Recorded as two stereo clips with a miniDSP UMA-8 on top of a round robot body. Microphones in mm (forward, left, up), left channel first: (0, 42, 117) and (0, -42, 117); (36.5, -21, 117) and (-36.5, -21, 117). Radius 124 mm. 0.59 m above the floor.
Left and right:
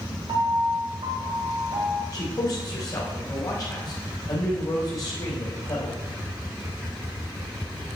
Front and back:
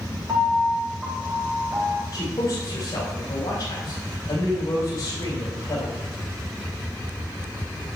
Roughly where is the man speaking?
Ahead left.